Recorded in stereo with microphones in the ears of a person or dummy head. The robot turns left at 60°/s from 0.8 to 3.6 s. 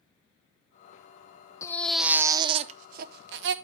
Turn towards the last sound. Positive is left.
turn(degrees=-100)